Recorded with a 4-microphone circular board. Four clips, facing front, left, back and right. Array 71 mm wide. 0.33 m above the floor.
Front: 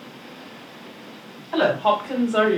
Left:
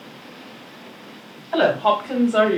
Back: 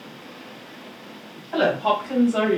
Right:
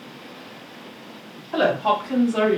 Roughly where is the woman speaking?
Left.